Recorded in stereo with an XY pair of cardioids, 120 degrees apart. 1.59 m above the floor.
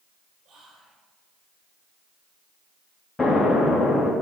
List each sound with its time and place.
0.5 s whispering: 45° right, 6 m
3.2 s an explosion: 20° left, 2.5 m